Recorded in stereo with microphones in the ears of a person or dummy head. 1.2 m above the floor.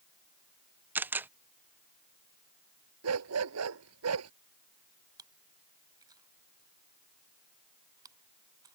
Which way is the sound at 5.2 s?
20° right (ahead or behind).